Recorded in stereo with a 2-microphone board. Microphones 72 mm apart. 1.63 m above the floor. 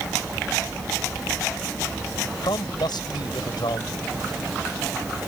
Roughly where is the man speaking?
Left.